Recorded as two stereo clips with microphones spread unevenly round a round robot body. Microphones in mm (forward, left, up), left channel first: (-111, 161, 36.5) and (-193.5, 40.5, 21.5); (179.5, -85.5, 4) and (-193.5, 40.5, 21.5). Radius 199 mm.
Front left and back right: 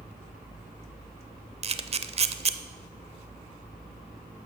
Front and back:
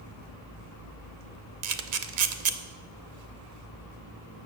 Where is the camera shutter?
160° right, 0.6 m.